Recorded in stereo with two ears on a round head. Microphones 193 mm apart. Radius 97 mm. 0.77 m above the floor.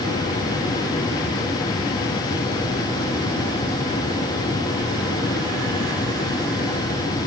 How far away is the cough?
I don't hear a cough.